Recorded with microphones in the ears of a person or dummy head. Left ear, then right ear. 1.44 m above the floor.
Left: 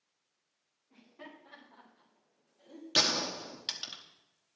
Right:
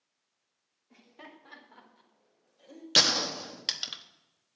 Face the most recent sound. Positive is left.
turn(degrees=-25)  # may be behind; listen again after turning